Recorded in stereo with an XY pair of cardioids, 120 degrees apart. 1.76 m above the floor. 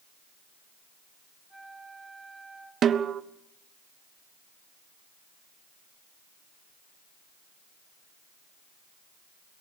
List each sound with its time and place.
1.5 s a flute: 5° right, 2.5 m
2.8 s a snare drum: 45° right, 1.0 m